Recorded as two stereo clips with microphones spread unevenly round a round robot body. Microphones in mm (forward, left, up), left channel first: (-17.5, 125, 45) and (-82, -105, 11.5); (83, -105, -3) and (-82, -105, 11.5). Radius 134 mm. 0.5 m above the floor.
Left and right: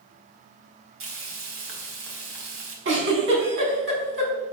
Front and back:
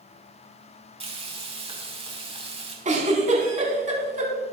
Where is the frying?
130° right, 4.5 m.